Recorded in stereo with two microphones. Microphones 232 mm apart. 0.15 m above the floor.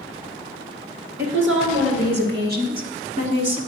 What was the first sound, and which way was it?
A woman speaking, 60° right (ahead or behind).